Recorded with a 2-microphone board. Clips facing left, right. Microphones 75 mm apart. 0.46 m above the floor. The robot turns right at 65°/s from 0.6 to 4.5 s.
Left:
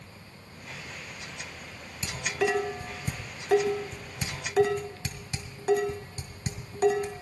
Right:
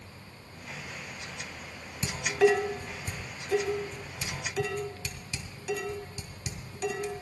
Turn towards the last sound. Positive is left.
turn(degrees=45)  # may be behind; listen again after turning